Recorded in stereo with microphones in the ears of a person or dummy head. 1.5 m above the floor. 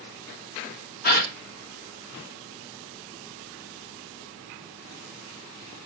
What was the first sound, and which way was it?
A gasp, 45° left (ahead or behind).